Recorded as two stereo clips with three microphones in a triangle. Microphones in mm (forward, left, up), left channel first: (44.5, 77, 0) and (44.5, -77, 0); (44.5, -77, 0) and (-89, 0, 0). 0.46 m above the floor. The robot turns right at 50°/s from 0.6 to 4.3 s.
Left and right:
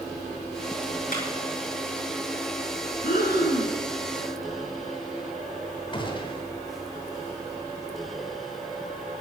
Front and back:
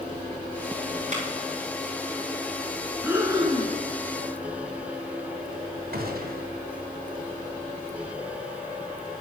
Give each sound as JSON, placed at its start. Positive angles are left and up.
{"t": 1.1, "sound": "a clap", "azimuth_deg": 110, "distance_m": 5.0}
{"t": 3.0, "sound": "breathing", "azimuth_deg": 70, "distance_m": 3.0}
{"t": 5.9, "sound": "a gunshot", "azimuth_deg": 145, "distance_m": 1.8}